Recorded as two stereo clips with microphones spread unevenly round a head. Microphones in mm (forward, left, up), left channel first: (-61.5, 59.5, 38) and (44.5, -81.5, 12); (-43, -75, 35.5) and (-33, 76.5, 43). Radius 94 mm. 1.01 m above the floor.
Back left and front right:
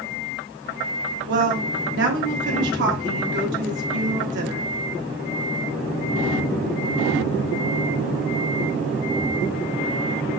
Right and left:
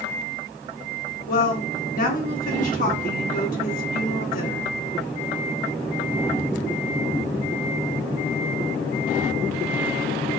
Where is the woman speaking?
60° right, 1.3 m.